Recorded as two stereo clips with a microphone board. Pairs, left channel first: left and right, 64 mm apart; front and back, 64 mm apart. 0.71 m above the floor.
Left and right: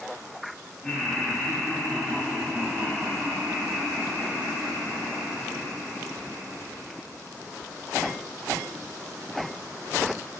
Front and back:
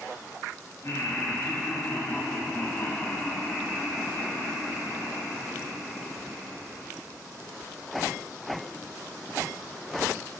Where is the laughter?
25° left, 1.6 m; by 6.9 s 120° right, 2.5 m.